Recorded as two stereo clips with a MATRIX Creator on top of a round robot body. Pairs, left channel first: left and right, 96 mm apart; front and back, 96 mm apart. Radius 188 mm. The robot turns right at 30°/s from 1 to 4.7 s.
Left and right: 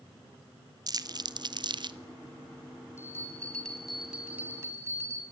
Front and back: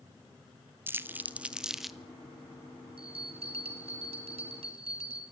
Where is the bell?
155° left, 3.5 m; by 5.2 s 155° right, 3.5 m.